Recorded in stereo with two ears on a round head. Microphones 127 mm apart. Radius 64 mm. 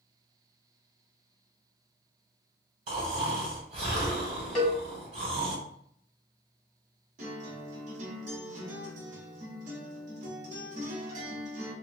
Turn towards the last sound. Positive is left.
turn(degrees=-55)  # may be behind; listen again after turning